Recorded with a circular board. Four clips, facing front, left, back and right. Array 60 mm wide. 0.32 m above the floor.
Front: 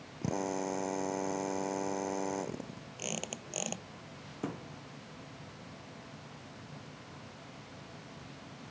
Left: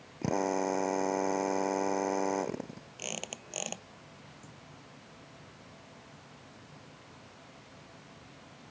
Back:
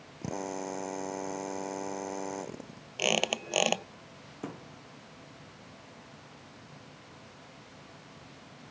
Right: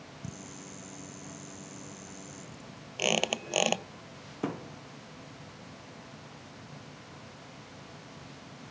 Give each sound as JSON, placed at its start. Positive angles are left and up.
{"t": 0.2, "sound": "a drill", "azimuth_deg": 85}
{"t": 3.0, "sound": "a squeak", "azimuth_deg": -140}
{"t": 4.4, "sound": "a thud", "azimuth_deg": -90}